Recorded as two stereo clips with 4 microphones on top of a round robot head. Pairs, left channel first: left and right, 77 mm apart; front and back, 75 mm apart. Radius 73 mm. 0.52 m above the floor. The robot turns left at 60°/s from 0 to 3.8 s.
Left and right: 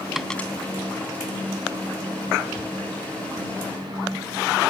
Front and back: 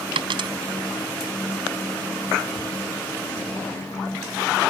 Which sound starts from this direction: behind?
A dropped coin, at 0.1 s.